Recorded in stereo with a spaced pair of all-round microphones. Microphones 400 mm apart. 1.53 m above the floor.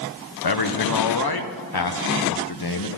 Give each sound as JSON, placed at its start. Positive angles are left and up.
{"t": 0.4, "sound": "a man speaking", "side_deg": 65, "distance_m": 0.7}